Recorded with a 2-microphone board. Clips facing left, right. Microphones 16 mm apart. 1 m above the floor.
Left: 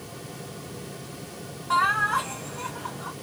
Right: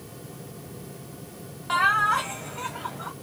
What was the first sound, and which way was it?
Laughter, 85° right.